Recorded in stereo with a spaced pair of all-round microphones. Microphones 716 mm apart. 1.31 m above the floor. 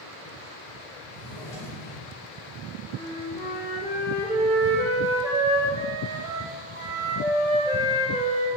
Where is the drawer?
45° left (ahead or behind), 3 m.